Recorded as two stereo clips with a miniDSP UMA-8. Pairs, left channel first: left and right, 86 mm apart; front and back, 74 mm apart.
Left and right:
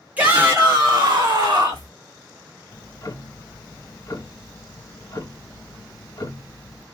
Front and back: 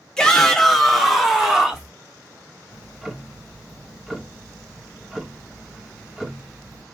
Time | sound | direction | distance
0.2 | a shout | 60° right | 0.9 m
2.7 | ticking | 100° left | 0.7 m